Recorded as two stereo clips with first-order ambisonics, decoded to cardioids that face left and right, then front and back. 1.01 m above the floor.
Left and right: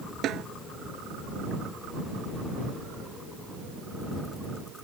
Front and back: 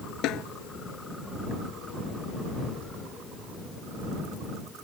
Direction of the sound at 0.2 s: 40° right.